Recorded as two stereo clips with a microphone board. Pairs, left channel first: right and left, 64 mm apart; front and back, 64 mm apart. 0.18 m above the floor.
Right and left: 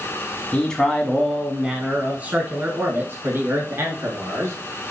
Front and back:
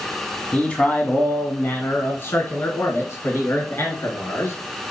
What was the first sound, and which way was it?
A man speaking, 40° right.